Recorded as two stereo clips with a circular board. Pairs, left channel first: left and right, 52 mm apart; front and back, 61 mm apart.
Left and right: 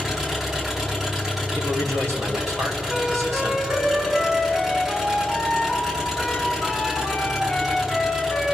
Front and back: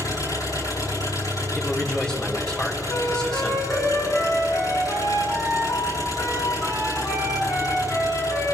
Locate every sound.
0.0 s an engine running: 15° right, 5 m
1.6 s a man speaking: 75° right, 1.3 m
2.9 s a flute: 15° right, 4 m